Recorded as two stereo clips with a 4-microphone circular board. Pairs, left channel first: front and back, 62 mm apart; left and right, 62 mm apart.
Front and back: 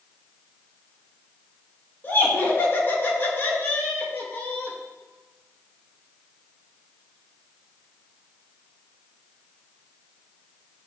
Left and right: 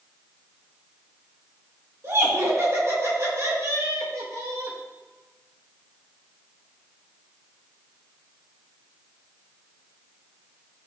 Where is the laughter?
50° right, 3.5 m.